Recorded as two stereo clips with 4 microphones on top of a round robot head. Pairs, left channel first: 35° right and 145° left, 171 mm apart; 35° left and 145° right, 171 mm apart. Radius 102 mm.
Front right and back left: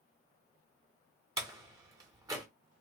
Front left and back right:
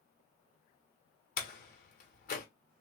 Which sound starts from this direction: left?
A door slam, at 1.4 s.